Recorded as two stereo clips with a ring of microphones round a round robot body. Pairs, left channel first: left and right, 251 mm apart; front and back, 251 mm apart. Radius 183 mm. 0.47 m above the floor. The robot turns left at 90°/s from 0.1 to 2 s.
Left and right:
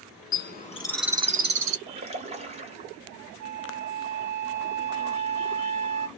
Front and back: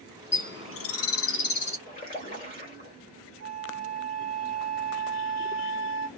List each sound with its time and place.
0.3 s a bird: 60° left, 0.9 m; by 1.8 s 70° right, 0.9 m
1.9 s a splash: 25° right, 1.7 m; by 3.0 s 40° right, 1.7 m
3.4 s a flute: 85° right, 0.6 m